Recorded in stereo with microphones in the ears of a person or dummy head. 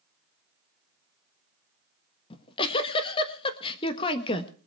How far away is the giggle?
About 1.4 m.